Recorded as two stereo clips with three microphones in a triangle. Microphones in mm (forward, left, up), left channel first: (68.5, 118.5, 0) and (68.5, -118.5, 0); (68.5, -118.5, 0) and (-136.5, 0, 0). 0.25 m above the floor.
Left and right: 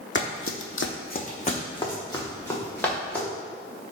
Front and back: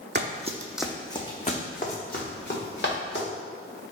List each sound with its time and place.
0.1 s running footsteps: 120° left, 0.6 m; by 3.2 s 5° left, 2.5 m